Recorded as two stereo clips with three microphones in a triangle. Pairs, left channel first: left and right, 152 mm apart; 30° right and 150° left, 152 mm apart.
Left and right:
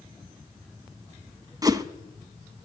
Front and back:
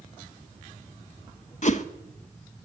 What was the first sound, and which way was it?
A whoosh, 30° right.